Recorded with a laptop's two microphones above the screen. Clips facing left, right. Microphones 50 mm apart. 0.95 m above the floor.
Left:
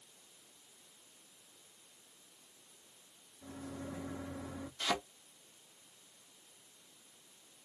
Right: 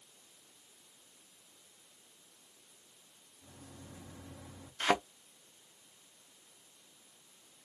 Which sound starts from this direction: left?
A microwave, at 3.4 s.